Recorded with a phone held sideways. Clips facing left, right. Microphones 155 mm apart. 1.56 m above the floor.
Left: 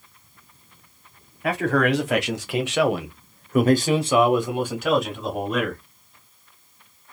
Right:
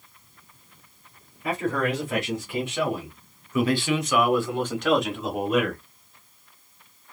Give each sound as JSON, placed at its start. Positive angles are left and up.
{"t": 1.4, "sound": "a man speaking", "side_deg": 70, "distance_m": 1.4}